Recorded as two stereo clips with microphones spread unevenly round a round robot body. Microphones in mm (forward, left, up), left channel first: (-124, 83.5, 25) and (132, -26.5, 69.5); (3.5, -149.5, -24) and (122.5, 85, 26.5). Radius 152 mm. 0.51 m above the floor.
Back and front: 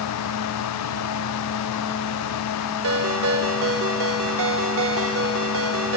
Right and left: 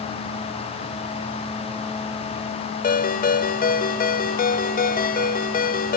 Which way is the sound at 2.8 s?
65° right.